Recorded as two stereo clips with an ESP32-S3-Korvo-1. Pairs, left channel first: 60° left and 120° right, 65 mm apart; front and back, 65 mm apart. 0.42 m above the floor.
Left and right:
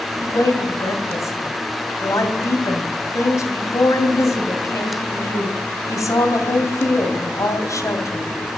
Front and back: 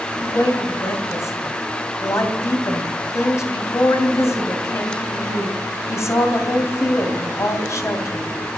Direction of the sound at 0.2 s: 35° left.